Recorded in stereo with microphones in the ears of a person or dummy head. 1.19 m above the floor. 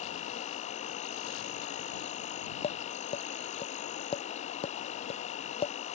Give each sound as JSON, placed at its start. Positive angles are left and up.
{"t": 0.0, "sound": "an insect", "side_deg": 40}
{"t": 2.6, "sound": "tapping", "side_deg": 35}